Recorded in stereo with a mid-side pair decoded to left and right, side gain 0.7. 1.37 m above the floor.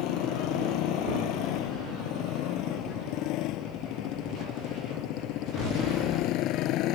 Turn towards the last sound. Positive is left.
turn(degrees=55)